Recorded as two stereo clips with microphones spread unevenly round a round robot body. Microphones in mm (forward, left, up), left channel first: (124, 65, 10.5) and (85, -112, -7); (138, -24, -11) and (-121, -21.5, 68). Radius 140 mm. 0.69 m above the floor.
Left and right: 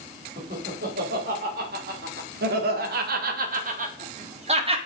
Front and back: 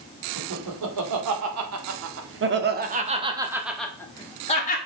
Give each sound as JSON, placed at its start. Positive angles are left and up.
{"t": 0.4, "sound": "laughter", "azimuth_deg": -160, "distance_m": 3.0}